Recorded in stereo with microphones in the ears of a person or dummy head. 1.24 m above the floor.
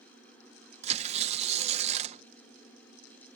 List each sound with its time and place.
0.8 s tearing paper: 35° right (ahead or behind)